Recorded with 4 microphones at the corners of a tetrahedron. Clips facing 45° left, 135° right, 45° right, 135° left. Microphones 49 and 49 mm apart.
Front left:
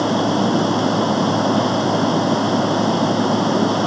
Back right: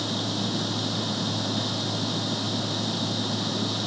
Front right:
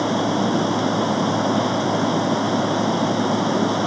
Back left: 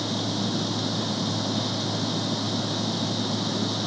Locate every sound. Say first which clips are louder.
0.0 s running water: front left 12 dB, front right 9 dB; 5° left